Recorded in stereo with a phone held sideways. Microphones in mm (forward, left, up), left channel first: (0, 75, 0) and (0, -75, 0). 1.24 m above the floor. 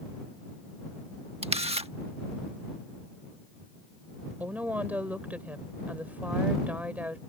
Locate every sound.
1.4 s a camera shutter: 40° right (ahead or behind)
4.4 s a woman speaking: 10° right (ahead or behind)